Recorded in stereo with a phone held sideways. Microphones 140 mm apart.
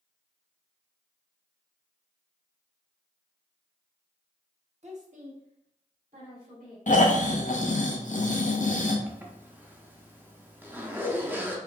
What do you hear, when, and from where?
4.8 s a woman speaking: 55° right (ahead or behind), 1.0 m; by 6.8 s 85° right, 3 m
6.9 s snoring: 65° left (ahead or behind), 0.5 m
9.1 s a zipper: 15° right (ahead or behind), 0.6 m